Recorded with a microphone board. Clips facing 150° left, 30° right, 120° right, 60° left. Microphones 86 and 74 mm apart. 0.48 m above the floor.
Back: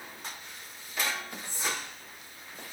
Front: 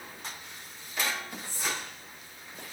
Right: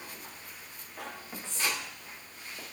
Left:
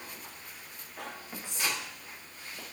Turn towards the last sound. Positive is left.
turn(degrees=115)